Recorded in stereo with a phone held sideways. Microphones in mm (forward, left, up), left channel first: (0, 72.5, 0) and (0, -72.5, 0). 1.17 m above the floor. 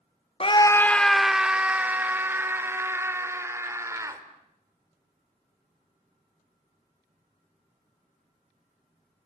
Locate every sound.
0.4 s a scream: 40° left (ahead or behind), 0.6 m; by 4.2 s 20° right (ahead or behind), 4.5 m